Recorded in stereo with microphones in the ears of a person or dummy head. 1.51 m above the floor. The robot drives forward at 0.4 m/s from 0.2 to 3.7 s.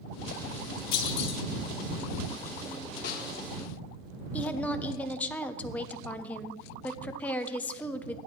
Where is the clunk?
30° left (ahead or behind), 2.5 m.